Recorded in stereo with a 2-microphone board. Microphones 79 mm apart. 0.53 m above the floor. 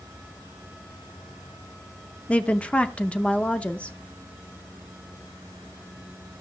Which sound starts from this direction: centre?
A woman speaking, at 2.3 s.